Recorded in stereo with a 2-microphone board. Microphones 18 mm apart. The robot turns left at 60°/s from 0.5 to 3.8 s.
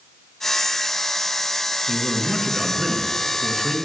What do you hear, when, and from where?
1.9 s a man speaking: 30° right, 1.8 m; by 3.8 s 140° right, 1.8 m